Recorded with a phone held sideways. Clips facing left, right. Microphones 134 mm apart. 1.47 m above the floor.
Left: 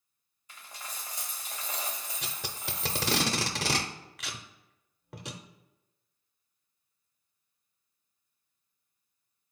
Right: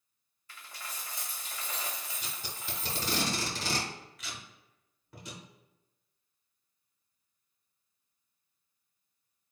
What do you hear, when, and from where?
0.5 s a dropped coin: 15° left (ahead or behind), 1.1 m
2.2 s tape being pulled: 75° left (ahead or behind), 0.6 m